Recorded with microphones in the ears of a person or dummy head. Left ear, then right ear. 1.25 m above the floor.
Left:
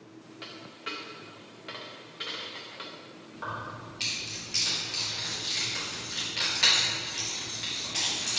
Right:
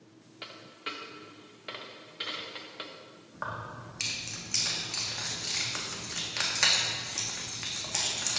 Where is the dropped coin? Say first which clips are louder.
Even; 15° right (ahead or behind), 0.6 m.